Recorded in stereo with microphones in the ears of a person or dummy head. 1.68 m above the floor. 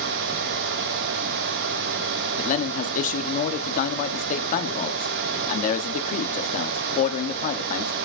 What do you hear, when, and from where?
2.4 s a man speaking: 35° left (ahead or behind), 1.2 m